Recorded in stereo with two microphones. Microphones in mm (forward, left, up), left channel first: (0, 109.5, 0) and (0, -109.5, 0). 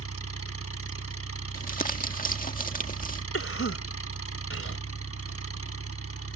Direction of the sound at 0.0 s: 80° left.